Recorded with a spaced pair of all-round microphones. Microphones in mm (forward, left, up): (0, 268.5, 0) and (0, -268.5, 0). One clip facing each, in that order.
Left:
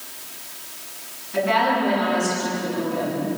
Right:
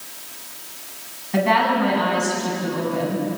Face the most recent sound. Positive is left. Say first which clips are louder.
# right 2 dB
turn(degrees=-85)